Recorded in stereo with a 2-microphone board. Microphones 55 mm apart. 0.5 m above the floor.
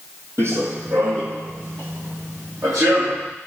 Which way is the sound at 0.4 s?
55° right (ahead or behind).